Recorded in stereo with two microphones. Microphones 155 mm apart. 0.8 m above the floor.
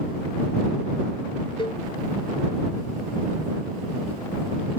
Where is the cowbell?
35° left (ahead or behind).